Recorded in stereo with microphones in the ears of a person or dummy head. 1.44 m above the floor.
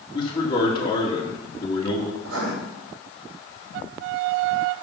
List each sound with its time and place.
0.1 s a man speaking: 25° left (ahead or behind), 2 m
2.2 s writing: 90° right, 3 m